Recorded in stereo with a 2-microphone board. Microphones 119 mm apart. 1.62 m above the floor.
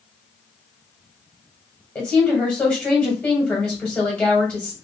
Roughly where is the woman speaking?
Centre.